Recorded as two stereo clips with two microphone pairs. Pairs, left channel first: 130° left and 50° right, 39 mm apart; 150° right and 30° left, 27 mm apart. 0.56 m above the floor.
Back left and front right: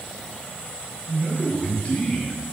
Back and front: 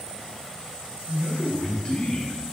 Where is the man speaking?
165° left, 2.5 m; by 2.4 s 170° right, 1.6 m.